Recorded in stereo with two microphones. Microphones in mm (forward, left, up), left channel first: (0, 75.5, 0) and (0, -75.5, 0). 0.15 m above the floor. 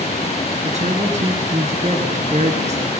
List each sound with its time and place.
0.6 s a woman speaking: 50° right (ahead or behind), 2.5 m